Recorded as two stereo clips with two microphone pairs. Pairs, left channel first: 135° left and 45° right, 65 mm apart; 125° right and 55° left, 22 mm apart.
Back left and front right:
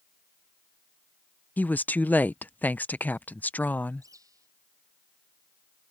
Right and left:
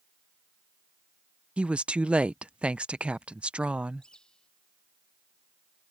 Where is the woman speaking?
75° left.